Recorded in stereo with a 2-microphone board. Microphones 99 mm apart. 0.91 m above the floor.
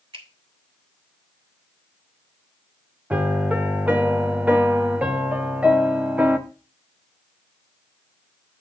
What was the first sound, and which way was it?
A finger snap, 65° right (ahead or behind).